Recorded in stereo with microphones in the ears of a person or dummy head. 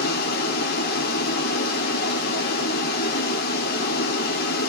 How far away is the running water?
About 2.5 m.